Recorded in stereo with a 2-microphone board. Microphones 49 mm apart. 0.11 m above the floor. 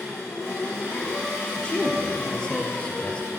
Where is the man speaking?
20° left (ahead or behind), 1.7 m.